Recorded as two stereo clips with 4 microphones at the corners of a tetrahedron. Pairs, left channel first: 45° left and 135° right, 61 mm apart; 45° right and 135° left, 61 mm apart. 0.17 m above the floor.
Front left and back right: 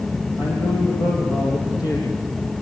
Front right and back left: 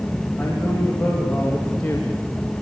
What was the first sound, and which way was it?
A man speaking, 35° left.